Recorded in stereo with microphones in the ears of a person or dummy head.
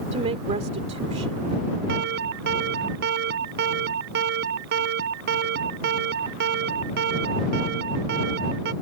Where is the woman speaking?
40° right (ahead or behind).